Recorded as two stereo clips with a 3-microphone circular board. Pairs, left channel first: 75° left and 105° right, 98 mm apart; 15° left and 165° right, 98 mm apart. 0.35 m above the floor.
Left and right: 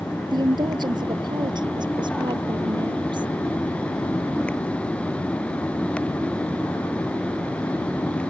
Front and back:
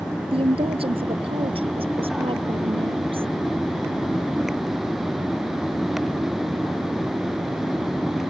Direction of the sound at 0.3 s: 150° right.